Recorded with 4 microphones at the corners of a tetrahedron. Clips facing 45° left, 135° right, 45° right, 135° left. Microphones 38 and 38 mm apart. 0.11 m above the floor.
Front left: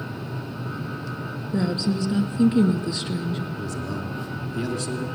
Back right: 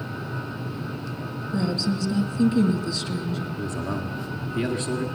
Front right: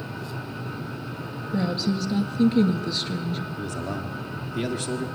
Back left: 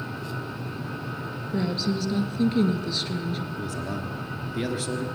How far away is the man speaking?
About 1.5 m.